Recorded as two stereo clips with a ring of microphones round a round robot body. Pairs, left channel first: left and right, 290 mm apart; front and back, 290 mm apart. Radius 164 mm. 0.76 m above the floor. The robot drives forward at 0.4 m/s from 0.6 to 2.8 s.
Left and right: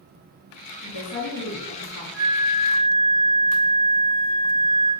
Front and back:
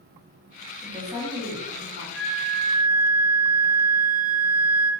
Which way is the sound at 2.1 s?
130° left.